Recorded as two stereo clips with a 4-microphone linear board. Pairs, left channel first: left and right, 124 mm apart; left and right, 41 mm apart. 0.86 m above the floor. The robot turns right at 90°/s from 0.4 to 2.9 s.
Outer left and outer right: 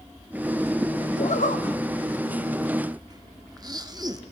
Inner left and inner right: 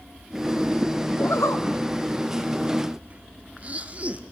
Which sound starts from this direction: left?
A zipper, at 1.2 s.